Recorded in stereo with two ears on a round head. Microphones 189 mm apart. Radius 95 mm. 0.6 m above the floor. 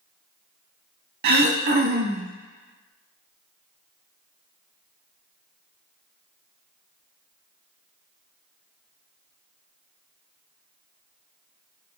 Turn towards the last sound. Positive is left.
turn(degrees=-45)  # may be behind; listen again after turning